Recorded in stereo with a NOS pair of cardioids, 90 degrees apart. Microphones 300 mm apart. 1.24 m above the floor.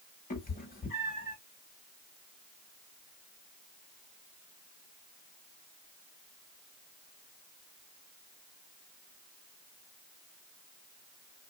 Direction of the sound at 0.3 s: 30° left.